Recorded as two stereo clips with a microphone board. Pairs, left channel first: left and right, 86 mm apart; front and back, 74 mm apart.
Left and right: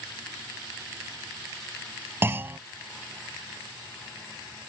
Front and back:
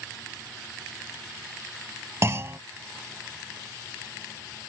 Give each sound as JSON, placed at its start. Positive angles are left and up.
{"t": 2.2, "sound": "a clunk", "azimuth_deg": -145}